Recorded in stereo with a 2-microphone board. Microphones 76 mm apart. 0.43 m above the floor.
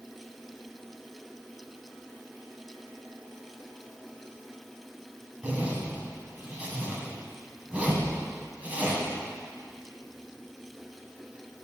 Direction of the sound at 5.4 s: 20° right (ahead or behind).